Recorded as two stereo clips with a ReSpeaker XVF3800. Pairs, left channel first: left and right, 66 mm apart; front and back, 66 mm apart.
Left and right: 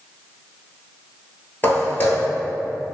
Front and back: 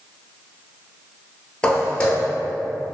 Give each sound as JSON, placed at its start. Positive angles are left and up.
{"t": 1.6, "sound": "footsteps", "azimuth_deg": 60, "distance_m": 1.0}